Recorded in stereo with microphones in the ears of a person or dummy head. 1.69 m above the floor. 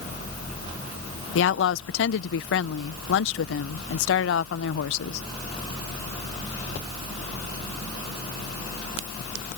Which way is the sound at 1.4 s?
85° left.